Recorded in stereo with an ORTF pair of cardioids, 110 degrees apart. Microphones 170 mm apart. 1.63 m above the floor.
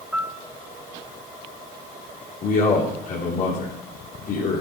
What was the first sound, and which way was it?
A piano, 5° right.